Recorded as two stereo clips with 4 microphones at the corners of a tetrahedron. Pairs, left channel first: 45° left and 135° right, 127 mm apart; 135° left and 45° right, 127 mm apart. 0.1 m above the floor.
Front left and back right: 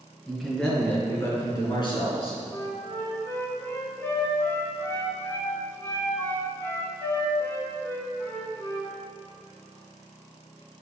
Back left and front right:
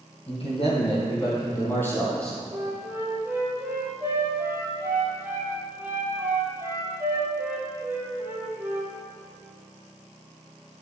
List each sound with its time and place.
0.3 s a man speaking: 135° left, 3 m; by 2.4 s 50° left, 2.5 m
2.5 s a flute: straight ahead, 1.5 m